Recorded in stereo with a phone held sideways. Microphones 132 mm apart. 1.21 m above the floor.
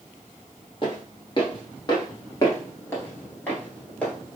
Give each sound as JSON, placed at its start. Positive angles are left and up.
{"t": 0.8, "sound": "footsteps", "side_deg": 35, "distance_m": 1.5}